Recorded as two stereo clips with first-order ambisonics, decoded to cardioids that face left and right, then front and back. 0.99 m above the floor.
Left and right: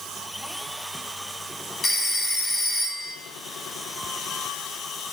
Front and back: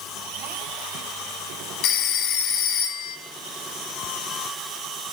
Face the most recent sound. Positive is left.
turn(degrees=15)